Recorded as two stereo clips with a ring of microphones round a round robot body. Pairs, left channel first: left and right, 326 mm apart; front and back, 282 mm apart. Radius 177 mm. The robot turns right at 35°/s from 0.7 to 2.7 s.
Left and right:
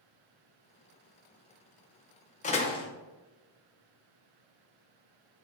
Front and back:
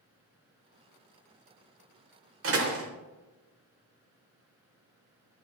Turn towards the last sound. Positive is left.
turn(degrees=165)